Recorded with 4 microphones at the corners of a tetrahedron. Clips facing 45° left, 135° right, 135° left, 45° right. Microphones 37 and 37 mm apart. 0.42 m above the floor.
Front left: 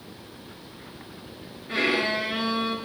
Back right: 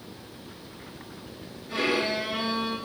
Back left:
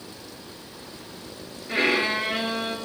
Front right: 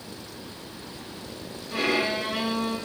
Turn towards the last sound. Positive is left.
turn(degrees=95)